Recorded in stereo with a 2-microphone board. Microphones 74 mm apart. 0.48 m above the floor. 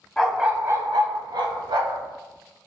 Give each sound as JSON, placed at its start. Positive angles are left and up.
{"t": 0.2, "sound": "a dog barking", "side_deg": 5, "distance_m": 0.6}